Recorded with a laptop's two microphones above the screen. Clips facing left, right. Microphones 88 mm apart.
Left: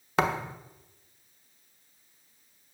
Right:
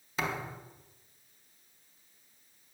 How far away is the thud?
About 1.4 m.